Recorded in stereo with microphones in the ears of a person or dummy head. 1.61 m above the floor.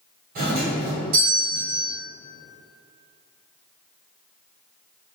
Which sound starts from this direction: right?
A doorbell, at 0.3 s.